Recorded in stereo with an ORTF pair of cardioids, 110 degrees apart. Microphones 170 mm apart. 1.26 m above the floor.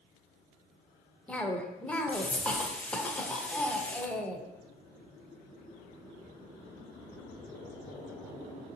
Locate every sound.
1.3 s a cough: 5° left, 0.6 m